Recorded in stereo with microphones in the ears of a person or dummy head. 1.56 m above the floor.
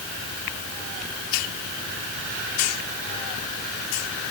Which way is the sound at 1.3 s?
85° left.